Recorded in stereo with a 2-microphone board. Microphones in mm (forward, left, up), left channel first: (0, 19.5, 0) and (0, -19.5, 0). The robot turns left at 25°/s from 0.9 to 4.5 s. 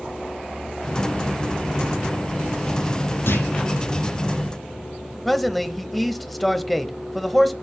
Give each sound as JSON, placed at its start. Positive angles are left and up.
{"t": 3.3, "sound": "a clunk", "side_deg": 70, "distance_m": 3.5}
{"t": 5.2, "sound": "a man speaking", "side_deg": 0, "distance_m": 1.0}